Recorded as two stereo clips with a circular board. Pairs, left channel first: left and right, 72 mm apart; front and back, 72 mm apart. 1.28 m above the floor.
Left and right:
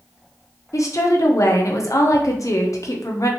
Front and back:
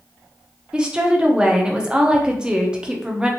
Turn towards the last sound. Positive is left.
turn(degrees=105)